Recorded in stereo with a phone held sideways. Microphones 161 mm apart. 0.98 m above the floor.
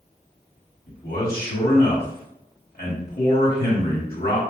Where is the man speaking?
70° left (ahead or behind), 2 m.